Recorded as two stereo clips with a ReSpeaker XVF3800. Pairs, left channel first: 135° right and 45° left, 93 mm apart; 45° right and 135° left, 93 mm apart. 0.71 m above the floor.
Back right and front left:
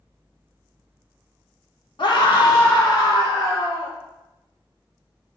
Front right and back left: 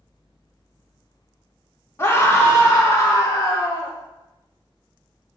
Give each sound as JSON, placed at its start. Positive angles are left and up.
{"t": 2.0, "sound": "a scream", "azimuth_deg": -105, "distance_m": 1.3}